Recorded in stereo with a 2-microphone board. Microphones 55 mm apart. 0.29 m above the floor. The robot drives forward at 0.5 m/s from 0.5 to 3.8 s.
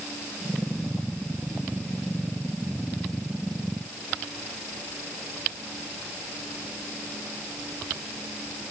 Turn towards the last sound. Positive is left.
No sound to turn to.